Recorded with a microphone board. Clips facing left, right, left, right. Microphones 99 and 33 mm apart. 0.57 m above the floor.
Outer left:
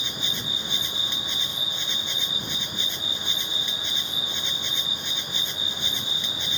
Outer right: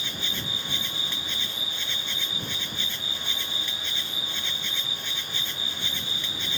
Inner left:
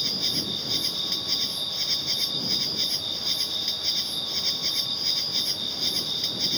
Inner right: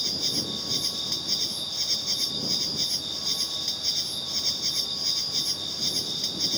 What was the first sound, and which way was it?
An insect, 20° left (ahead or behind).